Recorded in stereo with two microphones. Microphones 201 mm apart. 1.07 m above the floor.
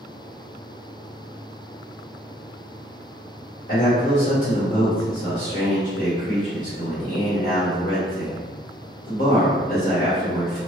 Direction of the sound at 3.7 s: 40° left (ahead or behind).